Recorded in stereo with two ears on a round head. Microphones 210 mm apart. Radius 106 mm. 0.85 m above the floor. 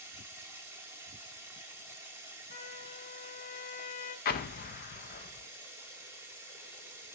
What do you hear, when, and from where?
0.0 s running water: 10° right (ahead or behind), 1.1 m
2.5 s a trumpet: 35° left (ahead or behind), 3 m
4.2 s an explosion: 40° left (ahead or behind), 0.7 m